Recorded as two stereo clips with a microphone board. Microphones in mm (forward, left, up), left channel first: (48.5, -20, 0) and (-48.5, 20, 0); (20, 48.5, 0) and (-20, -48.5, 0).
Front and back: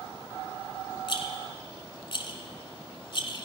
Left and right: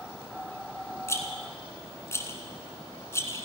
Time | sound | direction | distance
1.1 | a rattle | 10° left | 1.2 m